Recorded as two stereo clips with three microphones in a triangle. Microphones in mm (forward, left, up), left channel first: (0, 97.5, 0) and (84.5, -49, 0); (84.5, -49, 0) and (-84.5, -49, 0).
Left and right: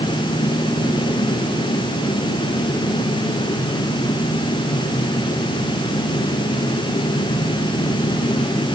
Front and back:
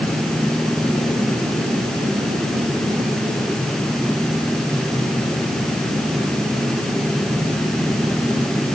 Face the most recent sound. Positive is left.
No sound to turn to.